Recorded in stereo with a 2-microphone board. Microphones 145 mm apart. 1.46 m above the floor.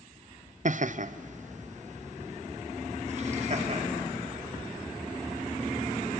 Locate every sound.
0.7 s laughter: 55° right (ahead or behind), 0.6 m; by 3.8 s 45° right (ahead or behind), 3 m